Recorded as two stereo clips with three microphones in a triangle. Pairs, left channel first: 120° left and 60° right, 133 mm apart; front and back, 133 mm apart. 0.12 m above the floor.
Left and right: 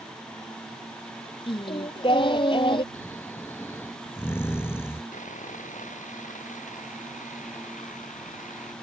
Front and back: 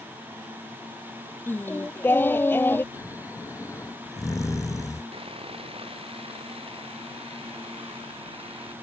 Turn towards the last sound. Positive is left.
turn(degrees=135)